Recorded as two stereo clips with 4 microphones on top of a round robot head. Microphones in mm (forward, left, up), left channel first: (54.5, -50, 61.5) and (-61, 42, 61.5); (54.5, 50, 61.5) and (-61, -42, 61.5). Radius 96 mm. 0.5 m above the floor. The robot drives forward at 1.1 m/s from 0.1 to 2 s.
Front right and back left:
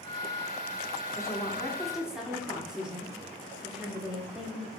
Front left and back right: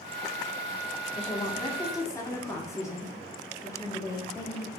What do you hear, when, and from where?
1.1 s a woman speaking: 20° left, 1.8 m; by 4.7 s 65° left, 1.3 m